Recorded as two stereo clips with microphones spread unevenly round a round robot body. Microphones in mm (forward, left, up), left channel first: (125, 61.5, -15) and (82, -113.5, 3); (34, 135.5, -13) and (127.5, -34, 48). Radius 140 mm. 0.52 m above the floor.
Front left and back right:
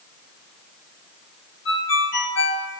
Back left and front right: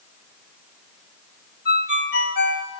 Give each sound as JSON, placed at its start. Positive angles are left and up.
{"t": 1.6, "sound": "a ringtone", "azimuth_deg": 95, "distance_m": 2.0}